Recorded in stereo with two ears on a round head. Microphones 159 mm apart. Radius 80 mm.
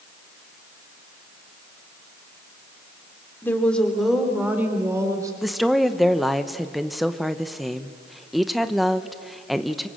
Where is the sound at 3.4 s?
15° left (ahead or behind), 3 m; by 5.3 s 20° right (ahead or behind), 4 m.